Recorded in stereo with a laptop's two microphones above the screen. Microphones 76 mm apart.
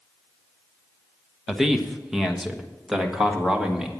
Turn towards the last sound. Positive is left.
turn(degrees=-10)  # may be behind; listen again after turning